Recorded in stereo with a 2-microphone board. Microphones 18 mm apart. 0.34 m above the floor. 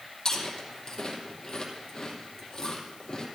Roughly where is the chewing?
Left.